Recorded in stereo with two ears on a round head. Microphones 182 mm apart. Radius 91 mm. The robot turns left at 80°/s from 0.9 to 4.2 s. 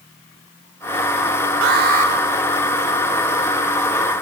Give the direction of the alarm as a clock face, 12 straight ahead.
4 o'clock.